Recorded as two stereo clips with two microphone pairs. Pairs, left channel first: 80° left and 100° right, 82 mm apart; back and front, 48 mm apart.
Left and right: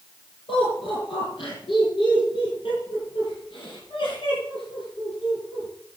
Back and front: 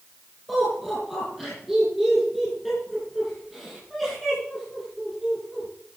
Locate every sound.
0.5 s laughter: 90° left, 8.5 m; by 5.7 s 95° left, 11.5 m